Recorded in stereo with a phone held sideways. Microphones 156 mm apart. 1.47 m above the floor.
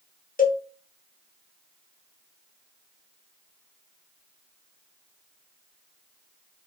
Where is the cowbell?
60° left (ahead or behind), 0.7 m.